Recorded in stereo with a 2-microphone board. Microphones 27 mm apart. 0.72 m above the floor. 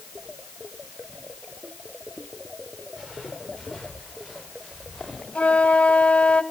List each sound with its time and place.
3.0 s footsteps: 10° right (ahead or behind), 5.5 m; by 5.2 s 5° right (ahead or behind), 9 m
5.3 s a flute: 50° left (ahead or behind), 0.7 m